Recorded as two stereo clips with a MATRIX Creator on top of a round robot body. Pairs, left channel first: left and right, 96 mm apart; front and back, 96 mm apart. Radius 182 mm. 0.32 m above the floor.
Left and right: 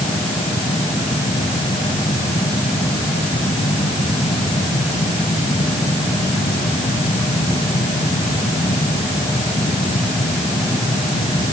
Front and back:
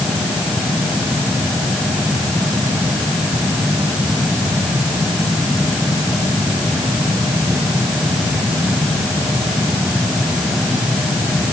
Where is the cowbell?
I don't hear a cowbell.